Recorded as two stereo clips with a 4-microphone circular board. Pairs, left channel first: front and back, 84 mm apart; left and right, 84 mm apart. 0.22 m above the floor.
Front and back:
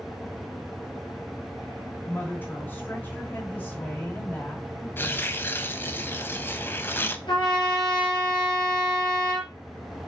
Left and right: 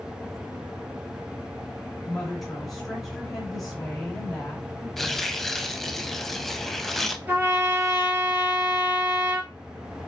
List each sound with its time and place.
2.0 s a woman speaking: 5° left, 1.4 m
5.0 s tearing paper: 10° left, 0.5 m
7.3 s a trumpet: 20° right, 2 m